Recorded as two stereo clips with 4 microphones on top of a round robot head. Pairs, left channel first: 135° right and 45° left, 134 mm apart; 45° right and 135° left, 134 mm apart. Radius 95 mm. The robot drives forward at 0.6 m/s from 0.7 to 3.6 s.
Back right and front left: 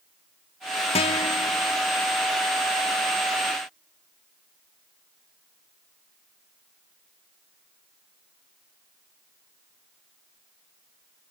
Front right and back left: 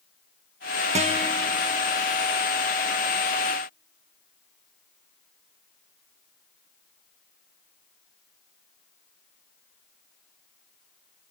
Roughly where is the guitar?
Behind.